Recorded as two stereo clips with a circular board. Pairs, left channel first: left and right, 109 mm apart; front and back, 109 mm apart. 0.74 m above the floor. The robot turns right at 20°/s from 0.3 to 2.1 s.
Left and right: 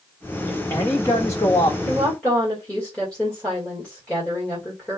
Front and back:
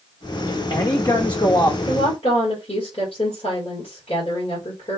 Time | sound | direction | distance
0.5 | a man speaking | 20° left | 0.7 m
1.9 | a woman speaking | 5° left | 2.5 m